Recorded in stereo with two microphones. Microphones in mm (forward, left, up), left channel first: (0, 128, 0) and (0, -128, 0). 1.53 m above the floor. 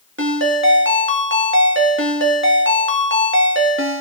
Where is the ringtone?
50° right (ahead or behind), 1.8 m.